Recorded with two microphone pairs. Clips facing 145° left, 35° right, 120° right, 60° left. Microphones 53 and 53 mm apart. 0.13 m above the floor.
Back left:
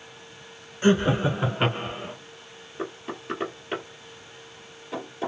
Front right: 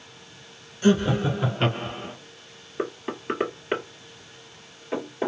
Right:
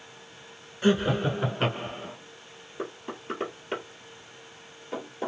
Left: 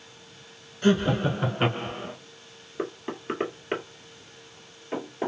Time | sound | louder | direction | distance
0.8 | laughter | even, left 1 dB | 170° left | 1.3 m
2.8 | knocking | front right 4 dB, left 4 dB | 10° left | 1.9 m